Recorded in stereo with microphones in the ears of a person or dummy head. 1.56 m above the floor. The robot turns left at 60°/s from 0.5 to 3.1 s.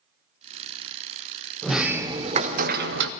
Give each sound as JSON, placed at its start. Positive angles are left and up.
{"t": 1.6, "sound": "a sliding door", "azimuth_deg": 5, "distance_m": 0.6}